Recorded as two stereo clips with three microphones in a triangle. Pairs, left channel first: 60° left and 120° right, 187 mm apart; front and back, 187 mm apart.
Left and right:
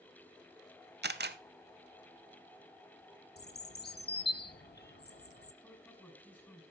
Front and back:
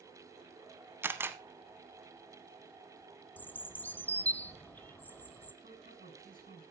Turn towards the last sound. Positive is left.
turn(degrees=140)